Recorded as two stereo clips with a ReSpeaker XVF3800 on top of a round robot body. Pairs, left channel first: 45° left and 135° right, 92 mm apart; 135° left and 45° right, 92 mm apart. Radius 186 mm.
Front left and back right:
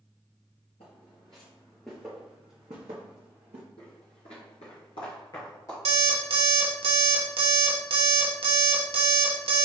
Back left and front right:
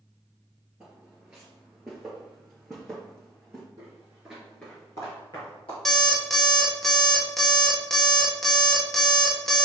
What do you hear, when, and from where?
0.8 s footsteps: 35° left, 1.0 m; by 3.6 s 145° right, 1.2 m
3.8 s footsteps: 10° left, 1.2 m; by 5.8 s 105° left, 1.4 m
5.8 s an alarm clock: 140° right, 0.7 m